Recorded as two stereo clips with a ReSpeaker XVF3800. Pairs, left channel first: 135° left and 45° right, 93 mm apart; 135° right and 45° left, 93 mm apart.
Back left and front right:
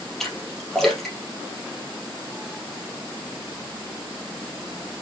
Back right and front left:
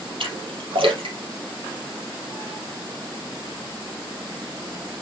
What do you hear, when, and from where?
0.2 s a splash: 50° left, 3 m